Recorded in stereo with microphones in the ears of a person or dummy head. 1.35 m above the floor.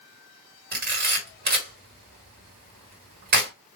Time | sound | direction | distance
0.7 | a camera shutter | 50° right (ahead or behind) | 2.0 m